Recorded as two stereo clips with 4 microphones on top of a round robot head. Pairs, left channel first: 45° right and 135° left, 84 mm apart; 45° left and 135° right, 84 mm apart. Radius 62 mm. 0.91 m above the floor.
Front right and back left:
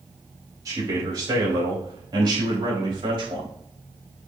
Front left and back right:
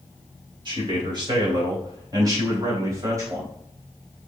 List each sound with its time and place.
0.7 s a man speaking: 175° right, 4 m; by 3.5 s 165° left, 4.5 m